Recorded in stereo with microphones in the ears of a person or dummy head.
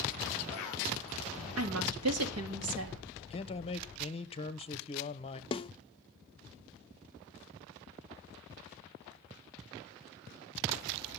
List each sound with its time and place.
1.6 s a woman speaking: 75° right (ahead or behind), 2.5 m
3.3 s a man speaking: 35° left (ahead or behind), 0.9 m
5.5 s a snare drum: 30° left (ahead or behind), 0.5 m